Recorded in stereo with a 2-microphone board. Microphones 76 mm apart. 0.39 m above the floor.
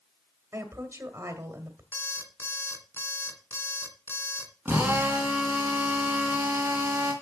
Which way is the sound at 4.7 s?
20° right (ahead or behind).